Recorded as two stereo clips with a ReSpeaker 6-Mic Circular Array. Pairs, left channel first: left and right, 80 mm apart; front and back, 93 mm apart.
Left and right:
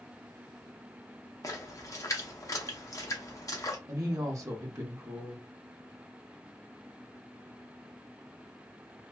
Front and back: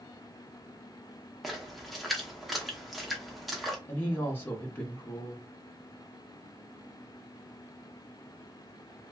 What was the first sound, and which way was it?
A splash, 90° left.